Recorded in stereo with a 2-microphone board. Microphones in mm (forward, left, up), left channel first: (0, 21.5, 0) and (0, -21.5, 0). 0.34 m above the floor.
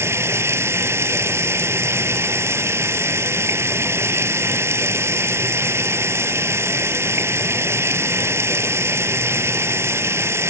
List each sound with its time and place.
0.0 s running water: 80° right